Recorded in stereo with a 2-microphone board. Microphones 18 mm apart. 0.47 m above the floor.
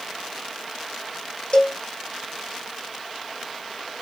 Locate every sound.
1.5 s a cowbell: 55° left (ahead or behind), 1.6 m